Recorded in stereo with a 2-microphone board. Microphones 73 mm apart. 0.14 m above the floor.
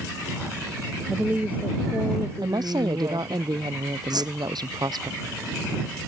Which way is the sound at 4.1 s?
70° right (ahead or behind).